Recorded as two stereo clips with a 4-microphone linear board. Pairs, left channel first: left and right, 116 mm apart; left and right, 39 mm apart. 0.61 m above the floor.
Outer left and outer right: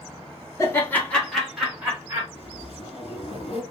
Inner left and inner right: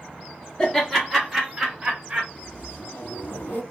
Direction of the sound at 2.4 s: 70° left (ahead or behind).